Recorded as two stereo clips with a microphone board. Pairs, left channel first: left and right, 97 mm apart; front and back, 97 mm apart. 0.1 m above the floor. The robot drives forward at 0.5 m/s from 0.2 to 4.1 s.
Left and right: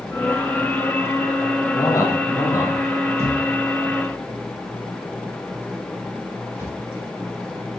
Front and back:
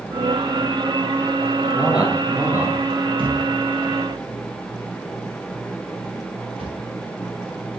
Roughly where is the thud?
Behind right.